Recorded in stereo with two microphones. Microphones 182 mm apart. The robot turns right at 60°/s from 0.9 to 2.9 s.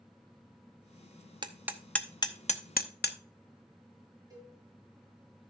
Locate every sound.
1.4 s hammering: 25° right (ahead or behind), 0.7 m; by 3.2 s 60° left (ahead or behind), 0.7 m
4.3 s a cowbell: 20° right (ahead or behind), 6.5 m